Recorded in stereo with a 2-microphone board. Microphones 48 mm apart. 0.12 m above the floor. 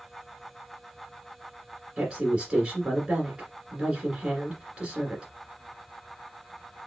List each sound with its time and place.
2.0 s a woman speaking: 20° right (ahead or behind), 1.9 m